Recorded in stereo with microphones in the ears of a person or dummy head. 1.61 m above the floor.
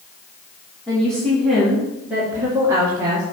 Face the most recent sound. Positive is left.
turn(degrees=-25)  # may be behind; listen again after turning